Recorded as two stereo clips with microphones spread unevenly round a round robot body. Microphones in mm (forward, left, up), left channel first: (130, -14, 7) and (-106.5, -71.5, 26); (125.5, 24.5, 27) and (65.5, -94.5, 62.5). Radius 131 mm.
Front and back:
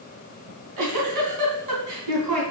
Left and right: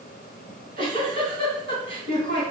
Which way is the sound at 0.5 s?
160° right.